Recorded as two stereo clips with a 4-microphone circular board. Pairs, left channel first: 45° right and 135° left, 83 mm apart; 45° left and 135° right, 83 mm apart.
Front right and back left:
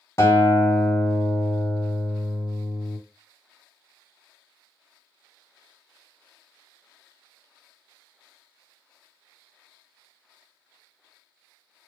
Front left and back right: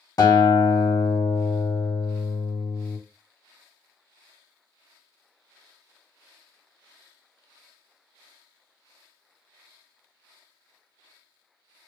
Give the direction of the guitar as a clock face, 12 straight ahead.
12 o'clock.